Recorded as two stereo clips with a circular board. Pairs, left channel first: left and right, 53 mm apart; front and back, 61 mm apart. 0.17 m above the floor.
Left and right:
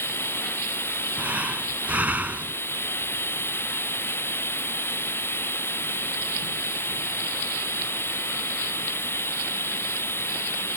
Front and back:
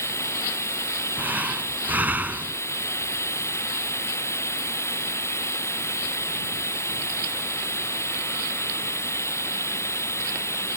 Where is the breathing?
135° right.